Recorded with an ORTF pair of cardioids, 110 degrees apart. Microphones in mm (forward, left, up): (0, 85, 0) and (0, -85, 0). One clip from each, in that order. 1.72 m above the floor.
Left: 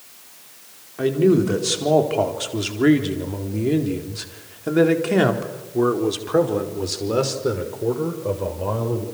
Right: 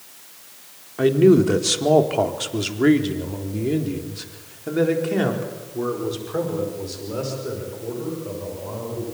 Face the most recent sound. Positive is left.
turn(degrees=65)